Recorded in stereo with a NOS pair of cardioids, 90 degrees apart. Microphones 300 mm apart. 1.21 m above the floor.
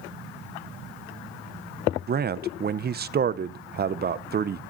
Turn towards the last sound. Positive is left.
turn(degrees=-35)